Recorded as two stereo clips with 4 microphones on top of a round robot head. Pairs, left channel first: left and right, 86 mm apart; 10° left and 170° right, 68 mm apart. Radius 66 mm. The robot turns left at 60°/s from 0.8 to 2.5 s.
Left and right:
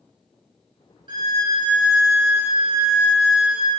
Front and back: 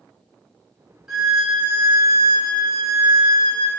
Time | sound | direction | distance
1.1 | a violin | 80° right | 0.6 m